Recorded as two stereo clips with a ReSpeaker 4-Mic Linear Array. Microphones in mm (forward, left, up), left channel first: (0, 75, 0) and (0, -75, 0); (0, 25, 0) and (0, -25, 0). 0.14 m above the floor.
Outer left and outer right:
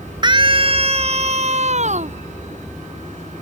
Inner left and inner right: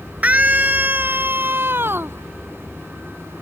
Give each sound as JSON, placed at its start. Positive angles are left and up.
{"t": 0.2, "sound": "a scream", "side_deg": -30}